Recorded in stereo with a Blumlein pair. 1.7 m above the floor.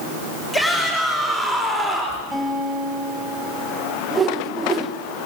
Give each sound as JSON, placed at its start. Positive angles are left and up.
{"t": 0.5, "sound": "a shout", "azimuth_deg": 5, "distance_m": 5.0}
{"t": 2.3, "sound": "a guitar", "azimuth_deg": 0, "distance_m": 5.5}
{"t": 4.1, "sound": "a whoosh", "azimuth_deg": -15, "distance_m": 1.2}